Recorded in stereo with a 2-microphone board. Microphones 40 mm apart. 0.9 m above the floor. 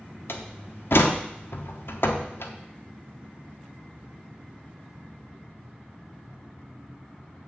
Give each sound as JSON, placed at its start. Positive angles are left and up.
{"t": 0.3, "sound": "a door slam", "side_deg": 75, "distance_m": 1.1}